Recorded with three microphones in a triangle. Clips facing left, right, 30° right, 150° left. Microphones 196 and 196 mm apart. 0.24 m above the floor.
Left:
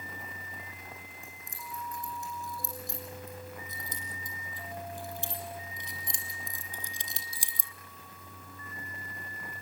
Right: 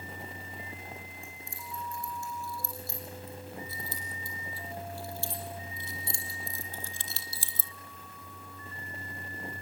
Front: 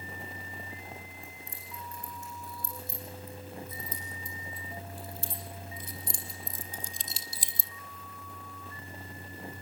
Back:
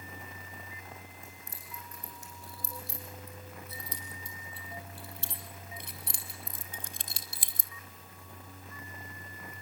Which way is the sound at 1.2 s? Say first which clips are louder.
Right 1 dB, front 2 dB; 160° left.